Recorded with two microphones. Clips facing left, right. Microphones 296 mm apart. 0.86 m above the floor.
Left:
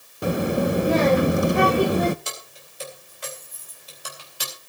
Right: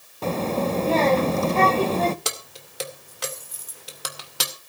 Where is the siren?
I don't hear a siren.